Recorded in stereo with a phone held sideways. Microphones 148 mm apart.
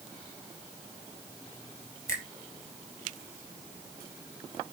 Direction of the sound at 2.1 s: 20° left (ahead or behind).